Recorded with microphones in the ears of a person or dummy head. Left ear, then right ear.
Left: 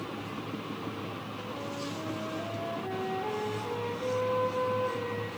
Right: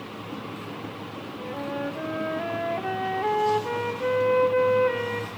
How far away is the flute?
About 1.0 m.